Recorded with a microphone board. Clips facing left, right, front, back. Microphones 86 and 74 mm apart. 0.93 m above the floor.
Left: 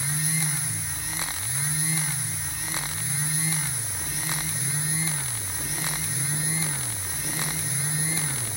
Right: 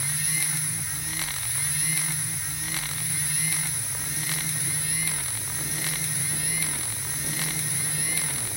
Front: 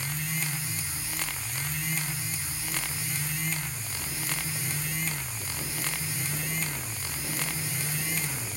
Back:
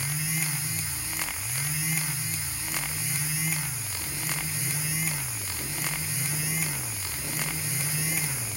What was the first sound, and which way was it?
Only background noise.